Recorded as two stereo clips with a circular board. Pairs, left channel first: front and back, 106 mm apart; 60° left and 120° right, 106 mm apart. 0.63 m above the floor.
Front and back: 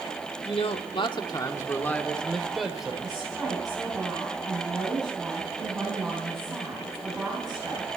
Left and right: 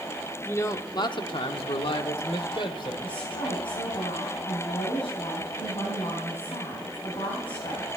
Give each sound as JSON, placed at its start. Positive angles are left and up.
{"t": 0.5, "sound": "a man speaking", "azimuth_deg": -5, "distance_m": 1.2}
{"t": 3.0, "sound": "a woman speaking", "azimuth_deg": 90, "distance_m": 4.0}